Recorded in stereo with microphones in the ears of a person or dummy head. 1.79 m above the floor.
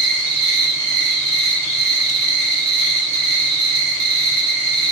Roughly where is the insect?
Right.